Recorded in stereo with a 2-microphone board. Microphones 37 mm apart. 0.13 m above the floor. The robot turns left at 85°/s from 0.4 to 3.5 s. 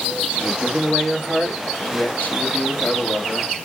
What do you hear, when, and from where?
0.3 s a man speaking: 130° right, 1.6 m; by 3.5 s 35° right, 1.6 m